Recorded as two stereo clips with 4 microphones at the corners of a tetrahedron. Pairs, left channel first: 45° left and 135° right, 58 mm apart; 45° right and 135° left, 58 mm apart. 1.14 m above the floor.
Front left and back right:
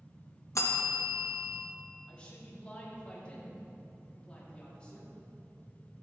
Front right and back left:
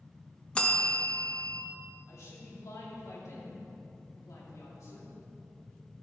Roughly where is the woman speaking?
Ahead right.